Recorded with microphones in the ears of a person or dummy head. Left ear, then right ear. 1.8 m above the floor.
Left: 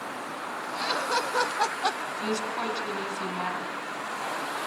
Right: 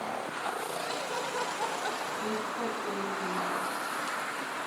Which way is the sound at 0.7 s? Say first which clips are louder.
Left 6 dB; 35° left (ahead or behind).